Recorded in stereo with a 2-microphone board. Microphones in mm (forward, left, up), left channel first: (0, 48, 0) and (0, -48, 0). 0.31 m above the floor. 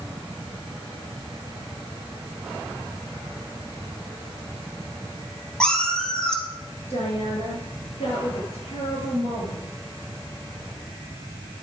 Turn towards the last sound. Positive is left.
turn(degrees=80)